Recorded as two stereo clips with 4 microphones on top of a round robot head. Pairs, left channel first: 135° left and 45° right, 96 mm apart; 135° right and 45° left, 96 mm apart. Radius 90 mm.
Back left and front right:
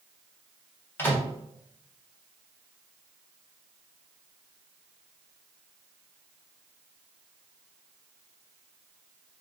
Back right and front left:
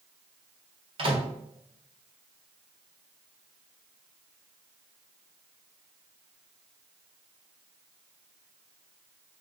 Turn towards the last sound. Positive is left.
turn(degrees=65)